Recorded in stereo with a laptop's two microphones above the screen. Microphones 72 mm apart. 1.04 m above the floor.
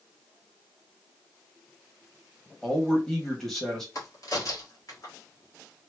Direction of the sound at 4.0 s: 55° left (ahead or behind).